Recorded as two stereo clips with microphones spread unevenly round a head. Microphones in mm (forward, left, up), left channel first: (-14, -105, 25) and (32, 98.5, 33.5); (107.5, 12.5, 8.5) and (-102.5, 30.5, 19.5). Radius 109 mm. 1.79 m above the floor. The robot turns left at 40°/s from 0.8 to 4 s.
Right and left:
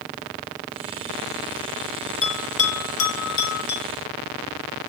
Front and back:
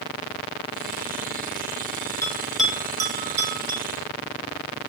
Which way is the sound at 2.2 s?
85° right.